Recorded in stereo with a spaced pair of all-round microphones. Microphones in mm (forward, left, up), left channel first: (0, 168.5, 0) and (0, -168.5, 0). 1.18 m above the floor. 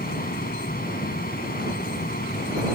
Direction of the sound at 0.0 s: 25° left (ahead or behind).